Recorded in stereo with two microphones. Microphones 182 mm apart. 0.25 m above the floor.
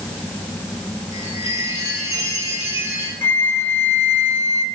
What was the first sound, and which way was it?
A chime, 20° right (ahead or behind).